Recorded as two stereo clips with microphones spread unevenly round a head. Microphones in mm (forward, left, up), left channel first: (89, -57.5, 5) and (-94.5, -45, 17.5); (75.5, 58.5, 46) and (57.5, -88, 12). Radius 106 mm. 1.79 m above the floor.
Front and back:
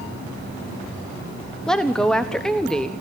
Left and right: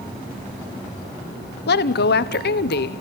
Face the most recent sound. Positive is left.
turn(degrees=85)